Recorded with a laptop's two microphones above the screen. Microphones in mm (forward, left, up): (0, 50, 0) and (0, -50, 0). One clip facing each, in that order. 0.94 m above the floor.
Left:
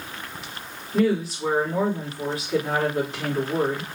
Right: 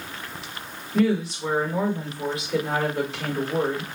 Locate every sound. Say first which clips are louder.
0.9 s a woman speaking: even; 35° left (ahead or behind), 2.5 m